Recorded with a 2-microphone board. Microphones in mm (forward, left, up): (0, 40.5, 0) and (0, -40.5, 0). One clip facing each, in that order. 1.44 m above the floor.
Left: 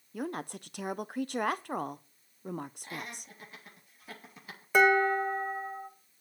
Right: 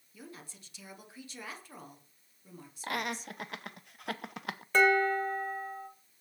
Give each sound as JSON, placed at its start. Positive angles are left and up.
{"t": 0.1, "sound": "a woman speaking", "side_deg": 60, "distance_m": 0.6}
{"t": 2.8, "sound": "laughter", "side_deg": -75, "distance_m": 0.9}
{"t": 4.7, "sound": "dishes clattering", "side_deg": 10, "distance_m": 1.9}